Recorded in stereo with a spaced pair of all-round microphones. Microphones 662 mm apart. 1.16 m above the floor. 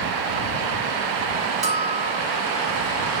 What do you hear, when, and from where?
1.6 s a bell: 35° right (ahead or behind)